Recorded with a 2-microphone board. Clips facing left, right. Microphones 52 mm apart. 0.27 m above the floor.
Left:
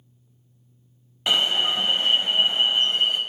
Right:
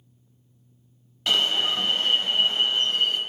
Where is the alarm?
20° left (ahead or behind), 0.8 m.